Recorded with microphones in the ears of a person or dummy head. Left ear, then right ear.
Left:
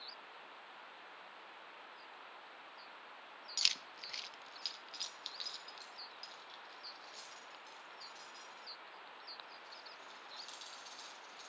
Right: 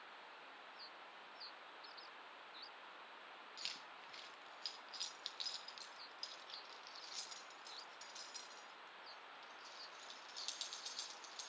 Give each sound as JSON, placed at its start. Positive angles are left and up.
{"t": 3.6, "sound": "keys jangling", "side_deg": 50, "distance_m": 0.7}